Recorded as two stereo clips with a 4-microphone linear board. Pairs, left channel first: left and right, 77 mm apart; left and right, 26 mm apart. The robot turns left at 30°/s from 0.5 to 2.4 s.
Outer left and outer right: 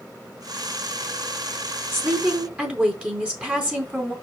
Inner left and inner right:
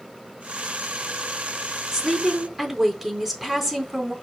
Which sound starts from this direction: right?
A woman speaking, at 1.9 s.